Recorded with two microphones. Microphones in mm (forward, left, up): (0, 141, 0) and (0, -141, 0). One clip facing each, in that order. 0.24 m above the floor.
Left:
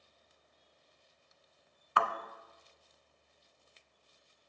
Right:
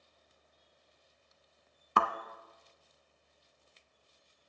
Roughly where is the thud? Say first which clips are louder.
Right 2 dB; right.